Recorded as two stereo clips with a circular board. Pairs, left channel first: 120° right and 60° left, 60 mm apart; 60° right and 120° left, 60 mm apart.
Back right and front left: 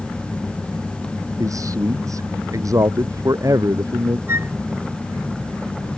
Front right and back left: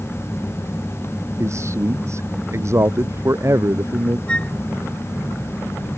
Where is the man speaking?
80° left.